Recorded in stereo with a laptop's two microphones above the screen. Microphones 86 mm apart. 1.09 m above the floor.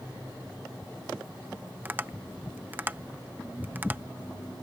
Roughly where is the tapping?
Centre.